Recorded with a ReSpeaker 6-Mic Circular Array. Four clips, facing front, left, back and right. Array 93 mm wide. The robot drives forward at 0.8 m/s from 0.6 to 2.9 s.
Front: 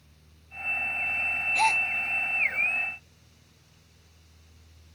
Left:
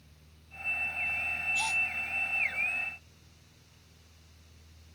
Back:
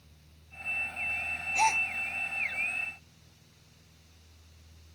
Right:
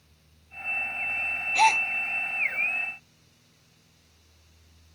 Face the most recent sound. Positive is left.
turn(degrees=-110)